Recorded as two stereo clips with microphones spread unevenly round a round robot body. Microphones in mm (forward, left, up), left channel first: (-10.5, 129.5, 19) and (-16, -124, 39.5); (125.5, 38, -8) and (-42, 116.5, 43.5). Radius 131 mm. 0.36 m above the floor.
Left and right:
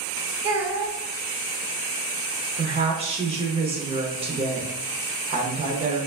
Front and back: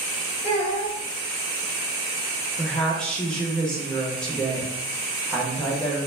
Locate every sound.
0.4 s a child speaking: 75° right, 1.0 m
2.6 s a woman speaking: 50° right, 0.8 m